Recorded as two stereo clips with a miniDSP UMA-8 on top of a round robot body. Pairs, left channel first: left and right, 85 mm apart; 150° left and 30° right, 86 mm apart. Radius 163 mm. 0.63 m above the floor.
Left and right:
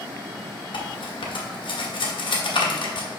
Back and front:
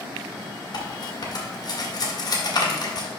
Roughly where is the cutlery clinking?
Left.